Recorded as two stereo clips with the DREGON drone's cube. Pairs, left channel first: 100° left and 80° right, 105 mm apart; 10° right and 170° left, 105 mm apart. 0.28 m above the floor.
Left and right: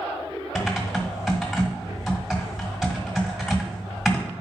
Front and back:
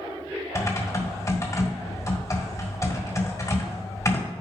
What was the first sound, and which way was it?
Typing on a keyboard, 10° left.